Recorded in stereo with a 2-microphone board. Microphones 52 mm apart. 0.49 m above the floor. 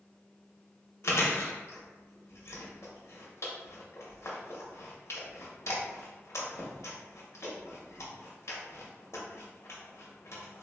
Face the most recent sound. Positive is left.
turn(degrees=65)  # may be behind; listen again after turning